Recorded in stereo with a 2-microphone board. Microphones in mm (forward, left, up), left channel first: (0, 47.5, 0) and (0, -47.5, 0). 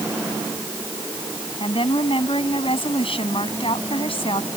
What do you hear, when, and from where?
1.6 s a woman speaking: 75° left (ahead or behind)